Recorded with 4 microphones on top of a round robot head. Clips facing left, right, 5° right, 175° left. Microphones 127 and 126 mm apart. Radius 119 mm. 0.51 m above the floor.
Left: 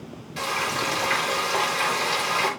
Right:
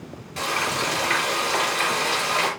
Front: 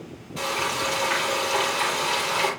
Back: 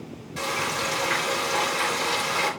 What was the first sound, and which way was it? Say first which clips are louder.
Frying: right 1 dB, front 1 dB; 135° right.